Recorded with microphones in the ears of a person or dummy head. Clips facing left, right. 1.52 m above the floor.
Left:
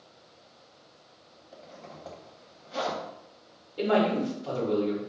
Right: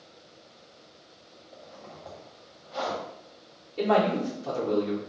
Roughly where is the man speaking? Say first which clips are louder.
Right 1 dB; right.